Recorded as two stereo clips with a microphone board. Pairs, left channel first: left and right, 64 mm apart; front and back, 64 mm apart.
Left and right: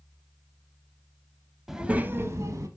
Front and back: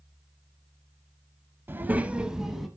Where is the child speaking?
175° right, 0.6 m; by 2.7 s 90° right, 0.9 m.